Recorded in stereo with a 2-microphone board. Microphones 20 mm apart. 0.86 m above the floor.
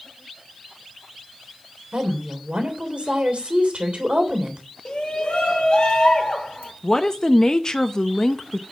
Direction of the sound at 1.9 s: 80° right.